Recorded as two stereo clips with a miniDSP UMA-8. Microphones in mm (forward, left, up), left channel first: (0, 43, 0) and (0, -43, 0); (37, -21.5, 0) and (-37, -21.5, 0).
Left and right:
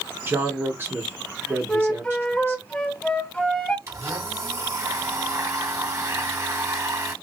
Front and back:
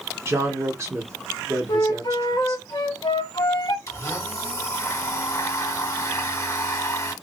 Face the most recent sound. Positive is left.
turn(degrees=-40)